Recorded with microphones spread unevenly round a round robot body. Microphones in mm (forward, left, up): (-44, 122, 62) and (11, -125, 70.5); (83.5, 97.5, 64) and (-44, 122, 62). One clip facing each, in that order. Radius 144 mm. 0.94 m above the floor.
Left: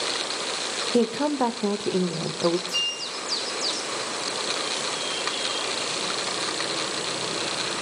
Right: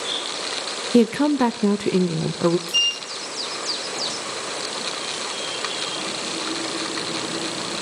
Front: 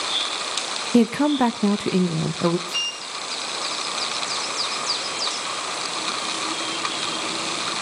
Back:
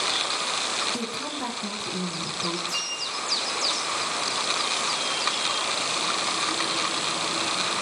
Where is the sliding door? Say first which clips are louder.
Right 1 dB, even; 80° right, 2.0 m.